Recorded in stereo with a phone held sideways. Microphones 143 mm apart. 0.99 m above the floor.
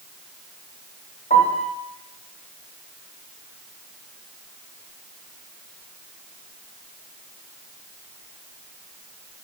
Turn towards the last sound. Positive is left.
turn(degrees=75)  # may be behind; listen again after turning